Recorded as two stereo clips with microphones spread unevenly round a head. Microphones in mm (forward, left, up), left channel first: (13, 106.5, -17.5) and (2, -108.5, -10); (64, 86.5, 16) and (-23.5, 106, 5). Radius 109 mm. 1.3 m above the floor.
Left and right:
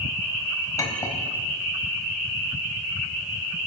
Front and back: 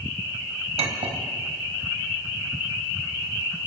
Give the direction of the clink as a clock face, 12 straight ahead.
6 o'clock.